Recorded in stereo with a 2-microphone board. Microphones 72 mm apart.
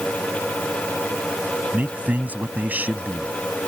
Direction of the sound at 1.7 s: 25° right (ahead or behind).